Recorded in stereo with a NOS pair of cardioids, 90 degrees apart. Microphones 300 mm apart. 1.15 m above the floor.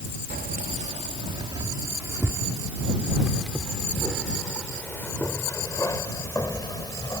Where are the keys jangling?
30° right; by 7.2 s 15° left.